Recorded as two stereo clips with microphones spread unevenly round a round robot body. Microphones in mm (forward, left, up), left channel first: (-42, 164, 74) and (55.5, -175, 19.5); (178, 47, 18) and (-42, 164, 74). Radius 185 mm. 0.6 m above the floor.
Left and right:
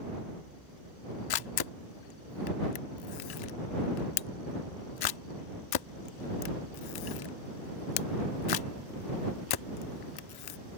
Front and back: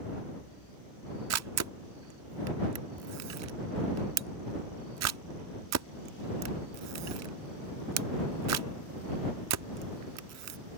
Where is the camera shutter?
130° left.